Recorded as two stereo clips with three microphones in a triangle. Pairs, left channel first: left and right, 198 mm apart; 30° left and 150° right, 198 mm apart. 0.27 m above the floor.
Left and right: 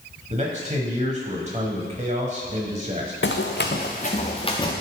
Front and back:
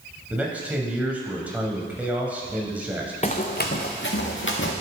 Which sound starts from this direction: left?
Running footsteps, at 3.2 s.